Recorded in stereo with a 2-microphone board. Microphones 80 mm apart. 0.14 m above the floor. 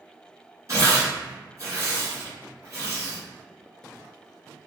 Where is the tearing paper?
40° right (ahead or behind), 1.3 m.